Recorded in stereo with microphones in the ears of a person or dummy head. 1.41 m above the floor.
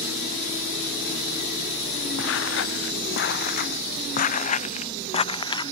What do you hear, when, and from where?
2.2 s footsteps: 75° left (ahead or behind); by 5.7 s 25° left (ahead or behind)